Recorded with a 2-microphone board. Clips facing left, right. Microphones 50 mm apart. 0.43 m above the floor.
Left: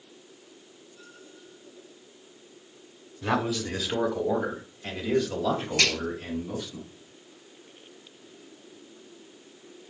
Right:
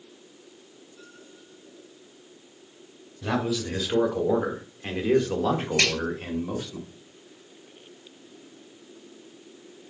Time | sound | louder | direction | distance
3.2 | a man speaking | even | 15° left (ahead or behind) | 1.0 m
5.8 | a finger snap | right 1 dB | 70° right (ahead or behind) | 2 m